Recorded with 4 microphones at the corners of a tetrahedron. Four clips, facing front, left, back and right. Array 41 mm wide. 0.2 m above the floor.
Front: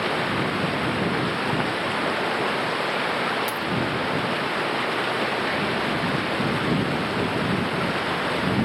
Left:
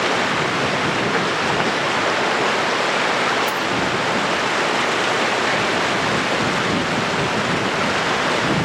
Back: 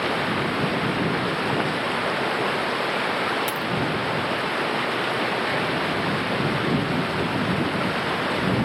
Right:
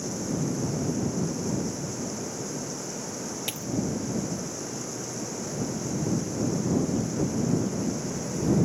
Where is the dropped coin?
125° right.